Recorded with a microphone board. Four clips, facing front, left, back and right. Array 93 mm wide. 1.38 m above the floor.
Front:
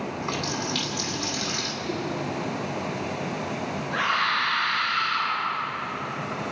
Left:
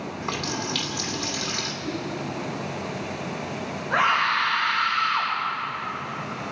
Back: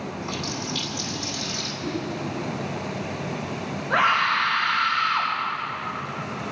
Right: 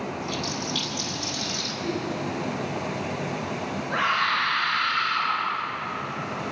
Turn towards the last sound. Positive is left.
turn(degrees=170)